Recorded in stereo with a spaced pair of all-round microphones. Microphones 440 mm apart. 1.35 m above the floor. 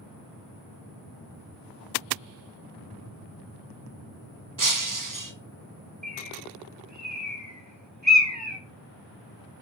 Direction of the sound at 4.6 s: 45° right (ahead or behind).